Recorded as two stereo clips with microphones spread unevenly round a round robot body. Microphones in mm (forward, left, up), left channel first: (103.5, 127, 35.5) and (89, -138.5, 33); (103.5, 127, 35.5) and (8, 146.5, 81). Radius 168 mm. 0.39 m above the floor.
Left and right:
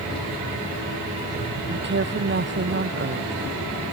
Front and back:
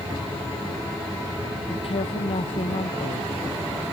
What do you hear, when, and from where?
1.7 s a woman speaking: 45° right